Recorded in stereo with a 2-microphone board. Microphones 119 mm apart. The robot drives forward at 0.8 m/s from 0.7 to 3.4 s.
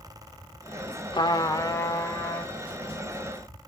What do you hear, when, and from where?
1.1 s a trumpet: 40° left (ahead or behind), 1.0 m; by 2.5 s 20° left (ahead or behind), 2 m